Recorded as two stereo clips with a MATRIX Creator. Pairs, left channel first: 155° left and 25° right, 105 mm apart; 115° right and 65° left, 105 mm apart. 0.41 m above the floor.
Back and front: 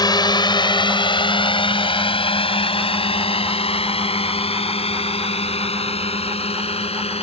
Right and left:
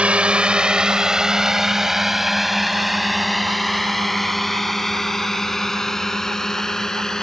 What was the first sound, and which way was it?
A drone, 140° left.